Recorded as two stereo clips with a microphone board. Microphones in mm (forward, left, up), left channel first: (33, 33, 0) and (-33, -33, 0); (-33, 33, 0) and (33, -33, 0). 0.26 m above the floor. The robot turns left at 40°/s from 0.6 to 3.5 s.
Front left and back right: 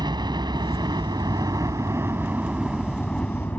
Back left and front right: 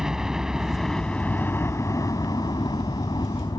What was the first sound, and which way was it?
A helicopter, 130° right.